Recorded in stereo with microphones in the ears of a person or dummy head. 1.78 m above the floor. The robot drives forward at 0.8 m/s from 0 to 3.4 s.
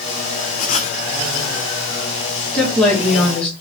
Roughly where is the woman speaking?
Centre.